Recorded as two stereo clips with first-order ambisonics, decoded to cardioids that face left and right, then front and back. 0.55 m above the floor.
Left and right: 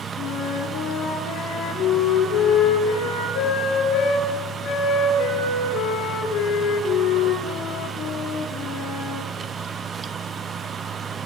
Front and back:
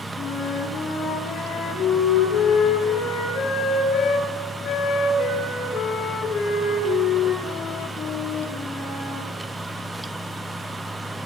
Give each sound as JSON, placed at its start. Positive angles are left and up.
{"t": 0.2, "sound": "a flute", "azimuth_deg": 60, "distance_m": 10.0}